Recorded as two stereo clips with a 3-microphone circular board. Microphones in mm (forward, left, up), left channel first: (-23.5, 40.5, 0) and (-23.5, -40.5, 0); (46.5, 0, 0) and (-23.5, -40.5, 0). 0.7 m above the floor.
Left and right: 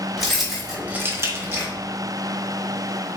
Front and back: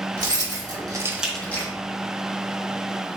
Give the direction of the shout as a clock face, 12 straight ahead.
No shout in this recording.